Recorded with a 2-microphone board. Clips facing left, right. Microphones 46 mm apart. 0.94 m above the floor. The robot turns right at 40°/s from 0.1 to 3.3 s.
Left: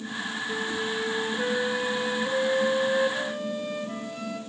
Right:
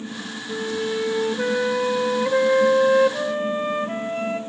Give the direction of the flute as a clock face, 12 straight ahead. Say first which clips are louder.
Right 6 dB; 6 o'clock.